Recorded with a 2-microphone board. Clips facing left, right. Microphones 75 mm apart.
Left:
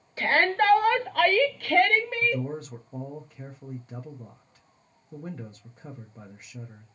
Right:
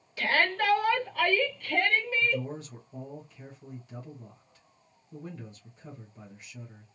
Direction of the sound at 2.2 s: 45° left (ahead or behind).